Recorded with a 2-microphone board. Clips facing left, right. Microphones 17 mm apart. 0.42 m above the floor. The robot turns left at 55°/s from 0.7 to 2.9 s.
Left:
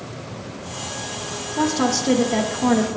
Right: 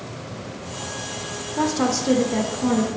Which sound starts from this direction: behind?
A woman speaking, at 1.6 s.